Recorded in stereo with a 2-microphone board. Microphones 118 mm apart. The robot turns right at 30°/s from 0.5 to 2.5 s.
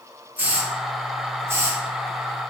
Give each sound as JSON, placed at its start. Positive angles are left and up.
{"t": 0.4, "sound": "a hiss", "side_deg": -15, "distance_m": 0.7}